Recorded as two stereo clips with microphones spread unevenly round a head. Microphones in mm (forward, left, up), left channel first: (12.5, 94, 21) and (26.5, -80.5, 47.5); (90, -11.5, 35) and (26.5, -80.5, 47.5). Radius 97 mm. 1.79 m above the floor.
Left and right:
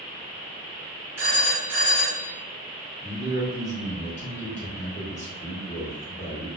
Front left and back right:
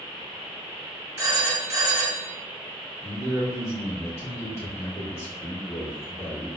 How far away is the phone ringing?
About 1.9 m.